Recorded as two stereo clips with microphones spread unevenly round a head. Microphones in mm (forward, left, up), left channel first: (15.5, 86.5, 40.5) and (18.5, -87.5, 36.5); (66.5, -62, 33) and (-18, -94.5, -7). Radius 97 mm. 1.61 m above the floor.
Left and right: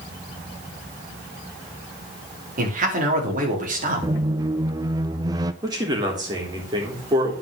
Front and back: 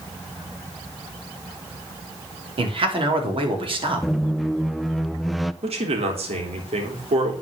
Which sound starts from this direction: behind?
A man speaking, at 5.6 s.